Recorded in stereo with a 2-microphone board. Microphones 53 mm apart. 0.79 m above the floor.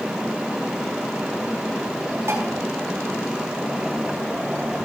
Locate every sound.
2.3 s dishes clattering: 60° right (ahead or behind), 5 m